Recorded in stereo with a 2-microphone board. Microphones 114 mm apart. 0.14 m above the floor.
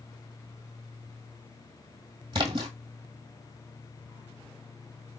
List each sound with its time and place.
2.3 s a splash: 45° right (ahead or behind), 1.4 m